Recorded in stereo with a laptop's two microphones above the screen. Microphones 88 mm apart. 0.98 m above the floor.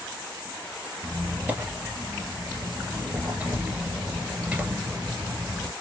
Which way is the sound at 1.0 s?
15° right (ahead or behind).